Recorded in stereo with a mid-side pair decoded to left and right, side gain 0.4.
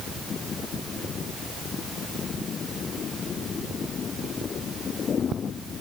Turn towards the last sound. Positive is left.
No sound to turn to.